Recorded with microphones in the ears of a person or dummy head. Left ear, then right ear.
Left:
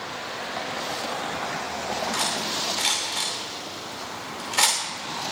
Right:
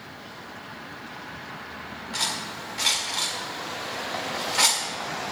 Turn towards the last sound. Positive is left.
turn(degrees=15)  # may be behind; listen again after turning